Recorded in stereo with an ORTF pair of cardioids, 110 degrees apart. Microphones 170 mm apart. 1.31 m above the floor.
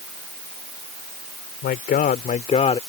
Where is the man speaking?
65° left; by 2.8 s 35° left.